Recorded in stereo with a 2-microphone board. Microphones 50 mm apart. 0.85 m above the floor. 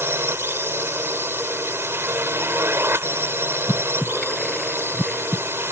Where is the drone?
55° right (ahead or behind).